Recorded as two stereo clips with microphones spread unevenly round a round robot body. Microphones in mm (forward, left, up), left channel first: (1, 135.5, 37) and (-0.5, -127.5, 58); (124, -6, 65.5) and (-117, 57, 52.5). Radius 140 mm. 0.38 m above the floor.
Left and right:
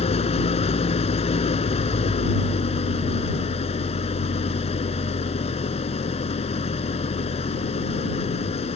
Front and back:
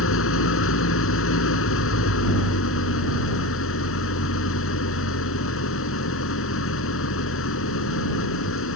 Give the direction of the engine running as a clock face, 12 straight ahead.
11 o'clock.